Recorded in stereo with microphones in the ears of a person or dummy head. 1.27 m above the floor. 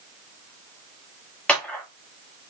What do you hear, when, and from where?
1.5 s a clap: centre (ahead or behind), 1.1 m